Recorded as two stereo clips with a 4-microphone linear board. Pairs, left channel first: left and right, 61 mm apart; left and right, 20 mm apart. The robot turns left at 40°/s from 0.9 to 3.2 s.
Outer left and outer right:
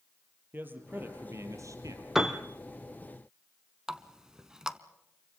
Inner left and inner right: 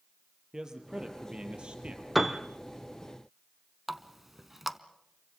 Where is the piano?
5° right (ahead or behind), 1.4 m; by 2.4 s 5° left (ahead or behind), 1.4 m.